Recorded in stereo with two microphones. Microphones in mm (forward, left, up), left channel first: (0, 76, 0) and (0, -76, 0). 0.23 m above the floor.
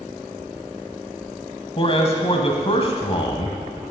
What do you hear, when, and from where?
1.8 s a man speaking: 40° left (ahead or behind), 1.1 m